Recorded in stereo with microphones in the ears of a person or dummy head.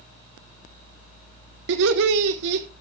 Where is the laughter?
65° right (ahead or behind), 1.5 m.